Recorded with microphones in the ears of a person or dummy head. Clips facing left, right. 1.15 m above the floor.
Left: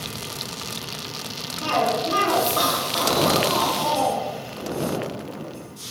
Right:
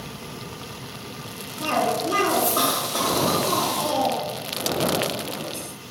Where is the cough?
25° right (ahead or behind), 0.8 m.